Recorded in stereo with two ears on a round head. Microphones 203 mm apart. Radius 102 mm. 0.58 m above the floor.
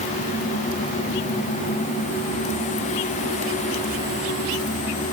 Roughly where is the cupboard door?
No cupboard door in this recording.